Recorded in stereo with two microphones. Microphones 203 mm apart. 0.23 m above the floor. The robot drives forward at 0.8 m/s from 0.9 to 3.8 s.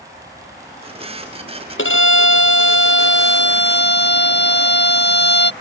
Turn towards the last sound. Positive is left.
turn(degrees=60)  # may be behind; listen again after turning